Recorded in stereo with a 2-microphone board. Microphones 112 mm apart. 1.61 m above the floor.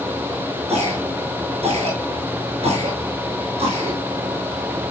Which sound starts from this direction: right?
A cough, at 0.7 s.